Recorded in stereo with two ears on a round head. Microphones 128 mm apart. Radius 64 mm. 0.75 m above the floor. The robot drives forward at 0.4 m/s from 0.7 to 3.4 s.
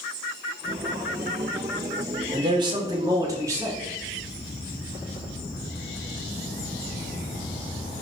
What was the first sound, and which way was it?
A man speaking, 35° right (ahead or behind).